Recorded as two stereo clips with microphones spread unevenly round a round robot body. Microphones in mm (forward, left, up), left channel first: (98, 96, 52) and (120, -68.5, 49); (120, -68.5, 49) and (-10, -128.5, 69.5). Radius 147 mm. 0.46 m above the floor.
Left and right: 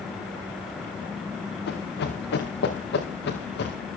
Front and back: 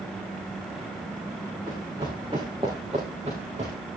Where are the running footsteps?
130° left, 3 m; by 3.8 s 140° left, 4 m.